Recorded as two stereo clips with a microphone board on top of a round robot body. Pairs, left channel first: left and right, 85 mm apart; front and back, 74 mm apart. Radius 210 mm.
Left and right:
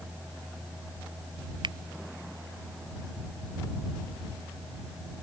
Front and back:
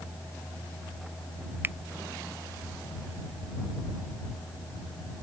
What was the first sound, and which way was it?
A finger snap, 120° right.